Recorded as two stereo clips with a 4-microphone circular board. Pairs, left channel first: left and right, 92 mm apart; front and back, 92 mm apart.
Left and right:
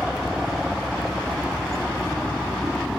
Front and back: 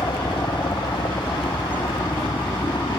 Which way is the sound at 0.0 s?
5° right.